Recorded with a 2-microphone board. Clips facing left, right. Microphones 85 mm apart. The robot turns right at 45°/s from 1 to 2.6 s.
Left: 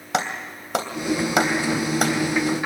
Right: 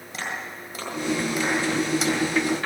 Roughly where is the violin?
I don't hear a violin.